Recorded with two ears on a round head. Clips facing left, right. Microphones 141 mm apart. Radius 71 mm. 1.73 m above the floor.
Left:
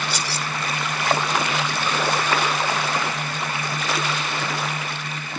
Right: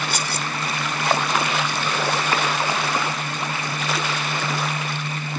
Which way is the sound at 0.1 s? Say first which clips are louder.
Right 1 dB; 45° right (ahead or behind).